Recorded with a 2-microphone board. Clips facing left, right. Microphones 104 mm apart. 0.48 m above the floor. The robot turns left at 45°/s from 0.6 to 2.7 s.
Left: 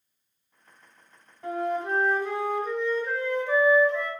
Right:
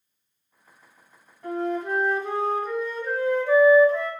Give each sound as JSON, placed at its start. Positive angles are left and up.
{"t": 1.4, "sound": "a flute", "azimuth_deg": 15, "distance_m": 1.3}